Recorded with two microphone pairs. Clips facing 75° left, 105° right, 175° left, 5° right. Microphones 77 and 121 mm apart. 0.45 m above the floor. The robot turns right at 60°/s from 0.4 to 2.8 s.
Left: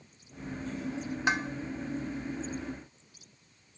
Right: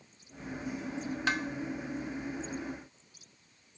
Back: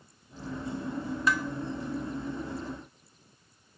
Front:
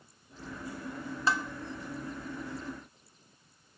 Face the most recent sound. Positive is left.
turn(degrees=115)